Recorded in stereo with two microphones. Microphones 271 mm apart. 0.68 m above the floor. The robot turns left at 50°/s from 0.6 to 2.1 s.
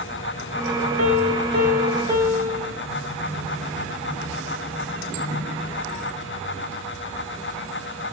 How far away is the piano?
About 1.4 m.